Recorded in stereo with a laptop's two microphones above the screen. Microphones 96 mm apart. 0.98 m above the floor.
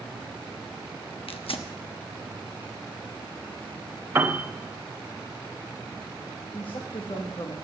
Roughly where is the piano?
Right.